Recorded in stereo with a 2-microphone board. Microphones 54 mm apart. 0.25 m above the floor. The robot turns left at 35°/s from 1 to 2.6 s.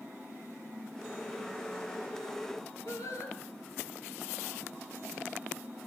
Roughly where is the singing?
Left.